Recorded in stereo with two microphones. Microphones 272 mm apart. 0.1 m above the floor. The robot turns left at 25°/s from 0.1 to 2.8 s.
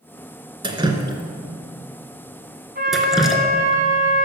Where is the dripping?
15° right (ahead or behind), 1.7 m; by 3.8 s centre (ahead or behind), 1.7 m.